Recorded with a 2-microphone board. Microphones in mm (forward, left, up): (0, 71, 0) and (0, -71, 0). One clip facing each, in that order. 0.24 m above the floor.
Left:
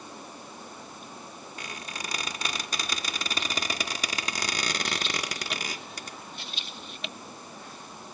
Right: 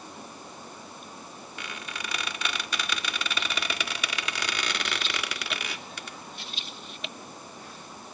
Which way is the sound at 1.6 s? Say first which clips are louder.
Right 1 dB; 40° left (ahead or behind).